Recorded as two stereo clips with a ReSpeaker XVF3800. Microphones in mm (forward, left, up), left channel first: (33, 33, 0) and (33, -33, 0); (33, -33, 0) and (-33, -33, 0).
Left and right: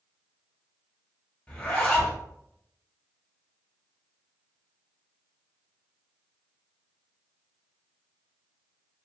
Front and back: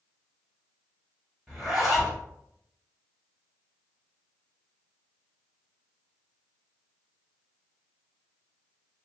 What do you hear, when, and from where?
1.5 s a zipper: 100° left, 1.4 m